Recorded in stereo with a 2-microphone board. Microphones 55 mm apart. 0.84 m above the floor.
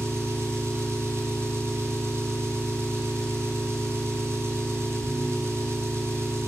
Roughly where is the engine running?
Right.